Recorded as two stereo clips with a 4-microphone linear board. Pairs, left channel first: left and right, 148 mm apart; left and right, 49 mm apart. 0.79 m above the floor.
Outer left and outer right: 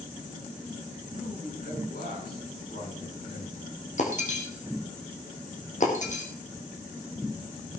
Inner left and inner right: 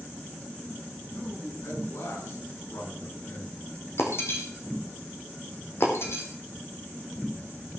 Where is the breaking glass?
55° left (ahead or behind), 3.5 m.